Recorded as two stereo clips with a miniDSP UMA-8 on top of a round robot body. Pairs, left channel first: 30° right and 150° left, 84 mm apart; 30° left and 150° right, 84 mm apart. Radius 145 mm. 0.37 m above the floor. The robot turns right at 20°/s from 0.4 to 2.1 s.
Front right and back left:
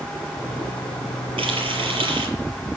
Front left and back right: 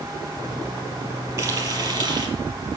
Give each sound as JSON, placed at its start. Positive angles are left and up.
{"t": 1.4, "sound": "frying", "azimuth_deg": 150, "distance_m": 5.0}